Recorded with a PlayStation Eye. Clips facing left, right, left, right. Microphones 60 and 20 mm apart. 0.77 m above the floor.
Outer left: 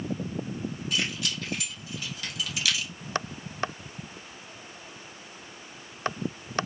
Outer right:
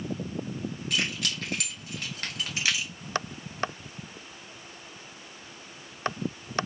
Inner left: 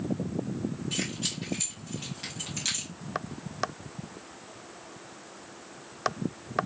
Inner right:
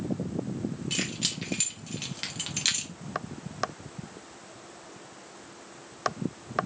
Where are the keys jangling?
65° right (ahead or behind), 1.4 m; by 2.9 s 15° right (ahead or behind), 0.6 m.